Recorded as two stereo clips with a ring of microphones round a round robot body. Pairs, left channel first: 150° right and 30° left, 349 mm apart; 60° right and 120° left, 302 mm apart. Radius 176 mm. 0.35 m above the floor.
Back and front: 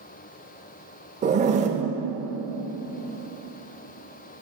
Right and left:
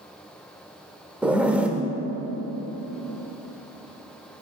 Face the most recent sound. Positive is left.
turn(degrees=40)